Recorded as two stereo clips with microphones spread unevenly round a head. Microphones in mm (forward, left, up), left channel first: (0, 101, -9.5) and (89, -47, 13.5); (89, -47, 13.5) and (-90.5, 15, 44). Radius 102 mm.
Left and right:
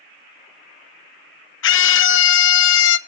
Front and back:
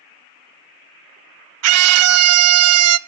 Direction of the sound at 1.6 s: 160° left.